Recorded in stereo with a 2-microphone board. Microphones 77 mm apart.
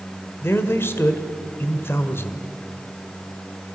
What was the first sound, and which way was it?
A man speaking, 35° left (ahead or behind).